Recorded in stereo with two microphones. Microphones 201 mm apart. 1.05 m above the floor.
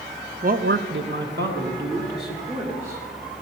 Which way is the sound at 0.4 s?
40° right (ahead or behind).